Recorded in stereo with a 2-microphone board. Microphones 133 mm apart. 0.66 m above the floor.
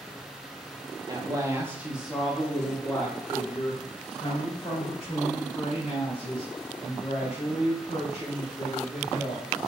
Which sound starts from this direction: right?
A woman speaking, at 1.1 s.